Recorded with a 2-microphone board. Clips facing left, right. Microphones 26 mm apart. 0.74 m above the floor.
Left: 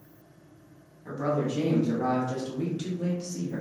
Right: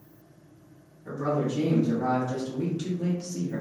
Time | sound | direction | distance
1.1 | a man speaking | 50° left (ahead or behind) | 1.3 m